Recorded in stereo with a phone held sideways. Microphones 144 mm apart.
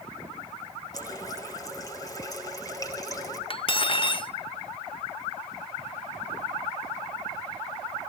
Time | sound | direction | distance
0.9 | a running tap | 25° left (ahead or behind) | 4.5 m
3.5 | cutlery clinking | 40° left (ahead or behind) | 0.8 m